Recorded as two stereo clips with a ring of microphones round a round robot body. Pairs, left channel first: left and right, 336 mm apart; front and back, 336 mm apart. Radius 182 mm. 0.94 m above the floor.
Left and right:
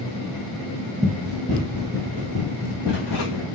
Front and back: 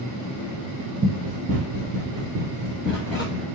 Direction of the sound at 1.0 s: 170° right.